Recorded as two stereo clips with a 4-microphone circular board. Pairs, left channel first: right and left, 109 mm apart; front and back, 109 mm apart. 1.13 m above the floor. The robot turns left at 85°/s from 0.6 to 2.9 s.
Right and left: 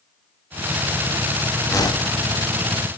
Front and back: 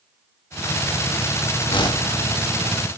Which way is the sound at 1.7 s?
30° right.